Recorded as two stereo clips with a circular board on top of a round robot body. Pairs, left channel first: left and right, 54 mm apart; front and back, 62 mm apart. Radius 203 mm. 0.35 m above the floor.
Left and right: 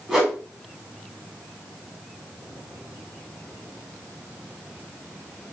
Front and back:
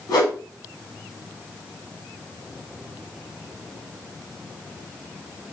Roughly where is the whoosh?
Ahead.